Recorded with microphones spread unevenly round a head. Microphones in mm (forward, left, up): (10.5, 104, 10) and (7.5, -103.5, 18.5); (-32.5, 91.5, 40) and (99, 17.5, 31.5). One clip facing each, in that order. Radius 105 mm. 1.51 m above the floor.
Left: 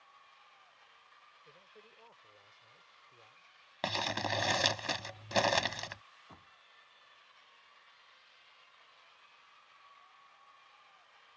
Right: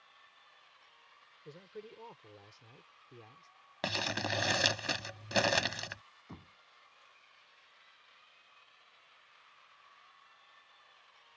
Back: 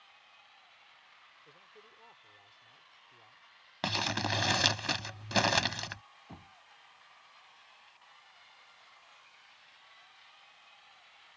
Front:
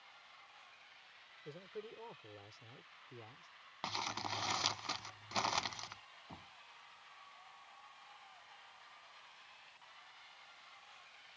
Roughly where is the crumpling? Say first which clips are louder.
Even, back 9 dB; behind.